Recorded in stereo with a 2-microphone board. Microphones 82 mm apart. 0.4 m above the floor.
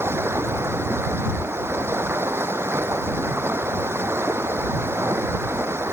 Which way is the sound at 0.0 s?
30° right (ahead or behind).